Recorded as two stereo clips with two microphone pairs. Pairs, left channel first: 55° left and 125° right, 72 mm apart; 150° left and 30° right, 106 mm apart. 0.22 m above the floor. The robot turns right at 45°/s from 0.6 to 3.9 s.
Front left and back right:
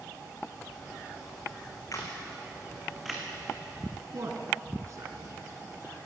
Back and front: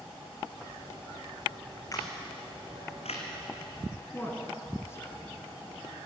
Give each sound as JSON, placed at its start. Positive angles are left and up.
{"t": 1.9, "sound": "a camera shutter", "azimuth_deg": 95, "distance_m": 3.0}
{"t": 4.1, "sound": "a man speaking", "azimuth_deg": -150, "distance_m": 2.5}